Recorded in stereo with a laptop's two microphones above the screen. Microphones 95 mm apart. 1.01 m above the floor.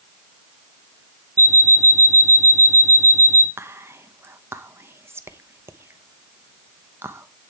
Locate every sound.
1.4 s an alarm clock: 35° right (ahead or behind), 0.7 m
3.6 s whispering: 25° right (ahead or behind), 0.9 m